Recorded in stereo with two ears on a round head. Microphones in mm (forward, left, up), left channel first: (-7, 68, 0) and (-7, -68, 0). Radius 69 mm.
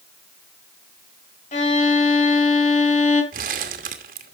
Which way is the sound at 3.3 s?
60° right (ahead or behind).